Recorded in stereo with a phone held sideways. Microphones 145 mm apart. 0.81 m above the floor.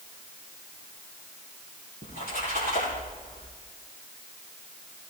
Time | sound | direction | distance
2.0 | a splash | 80° left | 6.5 m